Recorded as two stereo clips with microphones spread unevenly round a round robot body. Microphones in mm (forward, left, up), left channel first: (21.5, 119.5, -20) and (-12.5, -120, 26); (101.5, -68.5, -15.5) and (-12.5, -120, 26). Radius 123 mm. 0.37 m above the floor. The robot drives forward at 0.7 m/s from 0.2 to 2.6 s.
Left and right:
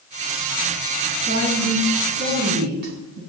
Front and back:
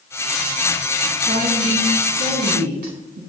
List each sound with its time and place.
1.3 s a woman speaking: 145° right, 3 m; by 3.2 s 155° right, 4 m